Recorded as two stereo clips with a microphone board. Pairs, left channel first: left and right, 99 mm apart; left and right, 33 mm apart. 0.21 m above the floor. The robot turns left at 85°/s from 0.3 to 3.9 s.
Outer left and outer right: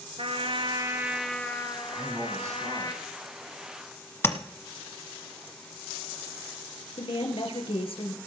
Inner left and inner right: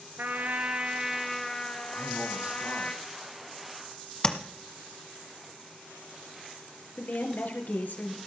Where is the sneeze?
No sneeze in this recording.